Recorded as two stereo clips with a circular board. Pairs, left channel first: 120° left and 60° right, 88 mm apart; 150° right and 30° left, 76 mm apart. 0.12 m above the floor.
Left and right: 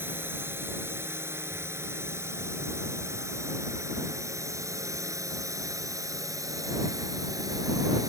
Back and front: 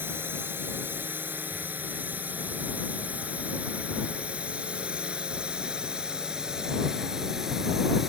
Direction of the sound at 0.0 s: 10° right.